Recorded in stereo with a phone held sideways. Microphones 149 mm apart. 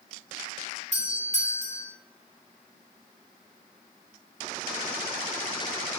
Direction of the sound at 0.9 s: 50° right (ahead or behind).